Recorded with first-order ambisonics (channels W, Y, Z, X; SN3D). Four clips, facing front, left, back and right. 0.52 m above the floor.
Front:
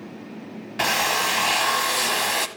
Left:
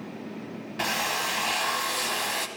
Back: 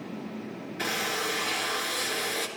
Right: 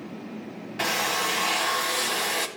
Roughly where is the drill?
Ahead.